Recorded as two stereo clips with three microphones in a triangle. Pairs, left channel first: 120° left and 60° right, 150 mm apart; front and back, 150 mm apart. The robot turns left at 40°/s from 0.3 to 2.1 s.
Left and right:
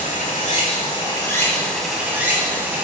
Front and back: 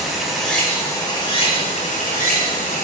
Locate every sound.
0.0 s running water: 90° left, 1.4 m; by 2.9 s 20° left, 1.4 m